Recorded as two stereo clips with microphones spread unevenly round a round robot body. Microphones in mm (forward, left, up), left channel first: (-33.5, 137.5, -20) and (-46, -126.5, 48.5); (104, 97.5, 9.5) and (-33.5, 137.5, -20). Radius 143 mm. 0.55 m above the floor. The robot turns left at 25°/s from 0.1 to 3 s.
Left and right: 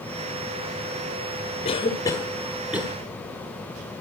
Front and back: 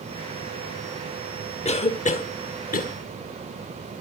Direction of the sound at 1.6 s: 30° left.